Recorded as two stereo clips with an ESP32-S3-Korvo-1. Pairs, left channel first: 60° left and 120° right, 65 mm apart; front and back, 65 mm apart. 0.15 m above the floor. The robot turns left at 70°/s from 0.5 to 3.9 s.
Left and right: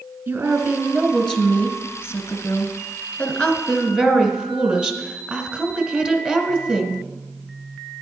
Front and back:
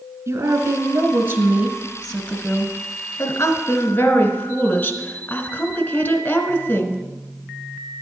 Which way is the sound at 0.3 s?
170° right.